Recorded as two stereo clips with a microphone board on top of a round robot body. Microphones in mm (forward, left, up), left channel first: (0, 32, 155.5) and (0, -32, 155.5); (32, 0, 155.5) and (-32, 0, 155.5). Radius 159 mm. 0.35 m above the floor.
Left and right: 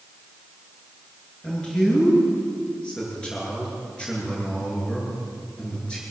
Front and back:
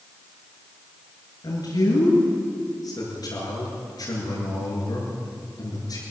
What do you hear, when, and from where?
1.4 s a man speaking: 15° left, 9.5 m